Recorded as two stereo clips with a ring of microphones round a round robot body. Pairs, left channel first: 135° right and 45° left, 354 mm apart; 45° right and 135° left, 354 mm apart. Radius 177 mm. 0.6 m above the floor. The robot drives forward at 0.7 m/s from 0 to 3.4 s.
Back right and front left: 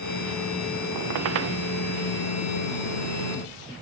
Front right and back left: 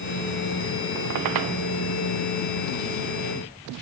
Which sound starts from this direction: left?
A squeak, at 0.9 s.